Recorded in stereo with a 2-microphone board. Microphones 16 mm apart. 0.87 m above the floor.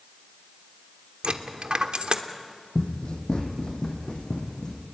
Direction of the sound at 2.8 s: 70° left (ahead or behind).